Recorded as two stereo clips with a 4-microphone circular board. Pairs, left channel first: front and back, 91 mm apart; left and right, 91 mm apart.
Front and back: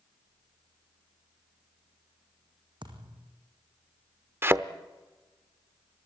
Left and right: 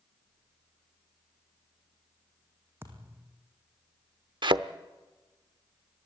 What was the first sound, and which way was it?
A thud, 155° right.